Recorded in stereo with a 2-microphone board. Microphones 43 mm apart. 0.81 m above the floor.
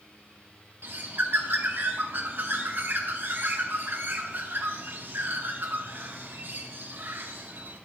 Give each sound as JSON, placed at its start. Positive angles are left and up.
{"t": 0.8, "sound": "a bird", "side_deg": -55, "distance_m": 0.8}